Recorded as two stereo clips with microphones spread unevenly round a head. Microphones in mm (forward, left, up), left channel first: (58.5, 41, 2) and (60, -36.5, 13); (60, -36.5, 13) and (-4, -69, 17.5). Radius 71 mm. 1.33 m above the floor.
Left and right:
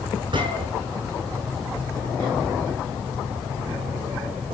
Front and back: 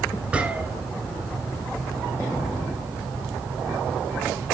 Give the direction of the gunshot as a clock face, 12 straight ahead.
3 o'clock.